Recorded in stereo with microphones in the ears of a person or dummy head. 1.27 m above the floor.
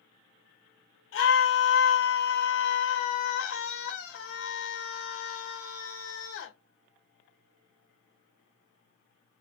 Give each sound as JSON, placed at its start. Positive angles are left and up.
{"t": 1.1, "sound": "a scream", "side_deg": 65, "distance_m": 1.6}